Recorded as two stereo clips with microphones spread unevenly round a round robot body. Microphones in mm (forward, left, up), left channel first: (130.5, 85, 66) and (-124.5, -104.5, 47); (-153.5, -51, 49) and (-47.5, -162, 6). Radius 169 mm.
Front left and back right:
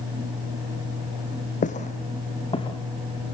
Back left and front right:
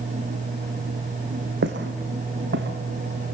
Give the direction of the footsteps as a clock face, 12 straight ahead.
1 o'clock.